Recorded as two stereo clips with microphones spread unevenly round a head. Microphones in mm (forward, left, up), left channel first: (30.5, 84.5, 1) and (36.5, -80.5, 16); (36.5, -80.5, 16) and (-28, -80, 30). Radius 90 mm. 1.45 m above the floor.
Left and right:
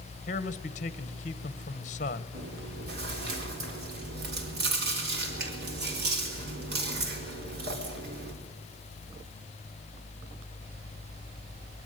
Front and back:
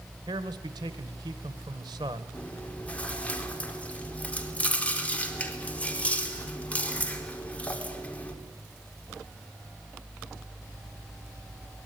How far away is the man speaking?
About 1.6 m.